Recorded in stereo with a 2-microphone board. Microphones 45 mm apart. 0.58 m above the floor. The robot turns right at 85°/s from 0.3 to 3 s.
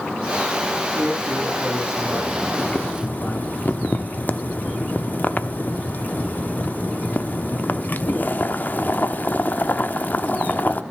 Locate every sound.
0.9 s a man speaking: 125° right, 5.5 m; by 3.6 s 50° left, 5.5 m
2.6 s boiling: 90° left, 0.7 m; by 10.8 s 120° left, 0.7 m